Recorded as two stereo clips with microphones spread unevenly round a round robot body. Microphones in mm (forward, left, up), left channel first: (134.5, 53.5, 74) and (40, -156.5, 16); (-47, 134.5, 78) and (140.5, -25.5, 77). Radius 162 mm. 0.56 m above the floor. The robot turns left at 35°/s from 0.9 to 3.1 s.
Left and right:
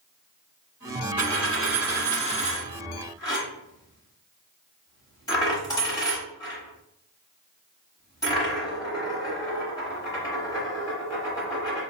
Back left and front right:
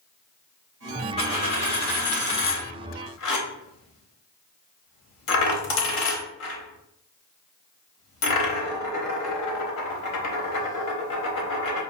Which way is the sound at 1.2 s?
150° right.